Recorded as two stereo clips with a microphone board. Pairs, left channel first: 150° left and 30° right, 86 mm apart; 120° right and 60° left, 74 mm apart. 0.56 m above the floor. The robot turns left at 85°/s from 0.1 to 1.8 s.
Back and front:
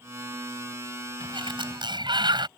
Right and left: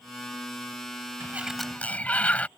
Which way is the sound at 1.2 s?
Straight ahead.